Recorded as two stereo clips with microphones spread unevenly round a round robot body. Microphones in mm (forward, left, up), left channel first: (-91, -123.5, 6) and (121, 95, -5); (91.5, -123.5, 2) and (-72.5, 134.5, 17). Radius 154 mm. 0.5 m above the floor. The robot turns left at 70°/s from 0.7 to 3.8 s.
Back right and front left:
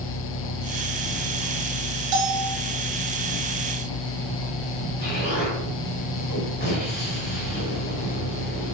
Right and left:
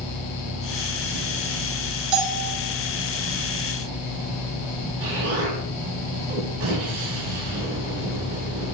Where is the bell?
85° left, 1.7 m; by 2.6 s 55° left, 1.7 m.